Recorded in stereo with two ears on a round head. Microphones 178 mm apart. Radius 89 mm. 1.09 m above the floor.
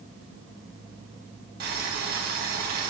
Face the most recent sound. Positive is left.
turn(degrees=-50)  # may be behind; listen again after turning